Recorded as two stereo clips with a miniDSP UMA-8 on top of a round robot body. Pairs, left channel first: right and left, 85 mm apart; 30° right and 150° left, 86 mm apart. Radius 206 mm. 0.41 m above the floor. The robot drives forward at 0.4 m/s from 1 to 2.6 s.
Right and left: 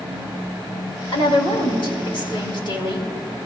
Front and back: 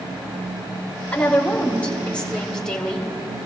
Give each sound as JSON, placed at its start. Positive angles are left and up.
{"t": 1.1, "sound": "a woman speaking", "azimuth_deg": -100, "distance_m": 3.5}